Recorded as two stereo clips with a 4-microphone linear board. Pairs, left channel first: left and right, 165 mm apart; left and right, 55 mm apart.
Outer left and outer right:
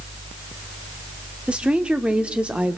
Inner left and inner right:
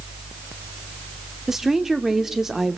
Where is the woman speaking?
5° right (ahead or behind), 1.2 m.